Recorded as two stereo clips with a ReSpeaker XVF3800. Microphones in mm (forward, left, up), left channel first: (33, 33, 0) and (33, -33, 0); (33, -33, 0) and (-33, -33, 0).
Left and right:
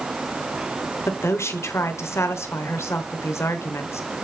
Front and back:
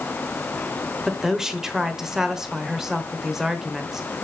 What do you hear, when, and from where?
1.1 s a woman speaking: 100° left, 1.1 m